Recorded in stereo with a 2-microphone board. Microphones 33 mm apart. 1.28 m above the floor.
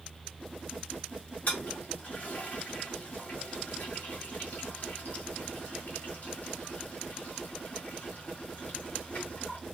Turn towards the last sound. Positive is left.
turn(degrees=50)  # may be behind; listen again after turning